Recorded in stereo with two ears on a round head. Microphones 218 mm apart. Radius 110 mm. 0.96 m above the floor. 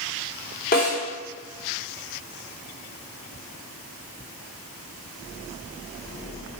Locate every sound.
0.7 s a snare drum: 40° left (ahead or behind), 3.5 m